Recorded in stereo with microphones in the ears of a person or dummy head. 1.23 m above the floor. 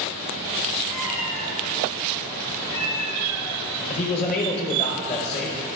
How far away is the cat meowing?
About 3 m.